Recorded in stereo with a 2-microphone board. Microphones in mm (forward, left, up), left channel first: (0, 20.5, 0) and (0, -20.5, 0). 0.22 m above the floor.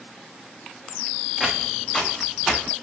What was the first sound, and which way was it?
Footsteps, 5° left (ahead or behind).